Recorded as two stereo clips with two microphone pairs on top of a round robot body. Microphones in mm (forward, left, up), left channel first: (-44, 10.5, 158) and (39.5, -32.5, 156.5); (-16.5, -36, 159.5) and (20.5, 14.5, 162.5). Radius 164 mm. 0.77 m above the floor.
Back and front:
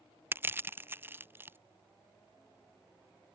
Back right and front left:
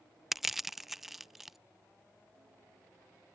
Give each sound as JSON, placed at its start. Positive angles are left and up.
{"t": 0.3, "sound": "crushing", "azimuth_deg": -35}